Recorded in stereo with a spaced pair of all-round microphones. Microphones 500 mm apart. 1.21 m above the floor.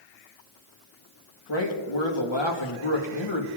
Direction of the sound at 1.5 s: 60° left (ahead or behind).